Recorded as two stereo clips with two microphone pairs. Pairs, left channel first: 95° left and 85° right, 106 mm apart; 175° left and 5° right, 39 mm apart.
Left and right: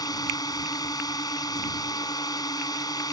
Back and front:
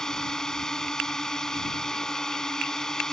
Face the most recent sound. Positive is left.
turn(degrees=110)